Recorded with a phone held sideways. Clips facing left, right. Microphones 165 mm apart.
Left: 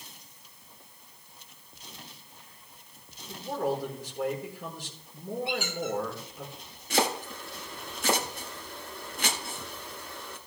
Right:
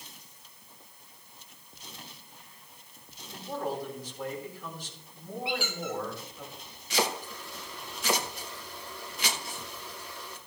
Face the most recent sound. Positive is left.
turn(degrees=50)  # may be behind; listen again after turning